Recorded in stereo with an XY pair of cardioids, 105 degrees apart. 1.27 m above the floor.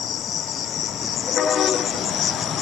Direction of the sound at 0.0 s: 60° left.